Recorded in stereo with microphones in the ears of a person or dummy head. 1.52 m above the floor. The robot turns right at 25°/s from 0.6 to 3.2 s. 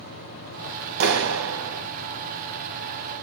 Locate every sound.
1.0 s a clap: 75° right (ahead or behind), 1.5 m; by 1.8 s 85° right, 1.5 m